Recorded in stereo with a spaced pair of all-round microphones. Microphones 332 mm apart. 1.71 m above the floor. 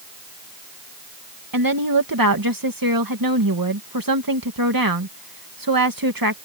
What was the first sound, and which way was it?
A woman speaking, 85° right.